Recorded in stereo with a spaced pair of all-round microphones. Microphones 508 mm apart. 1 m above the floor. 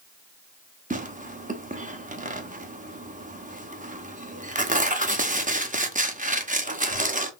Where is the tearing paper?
15° right (ahead or behind), 0.7 m.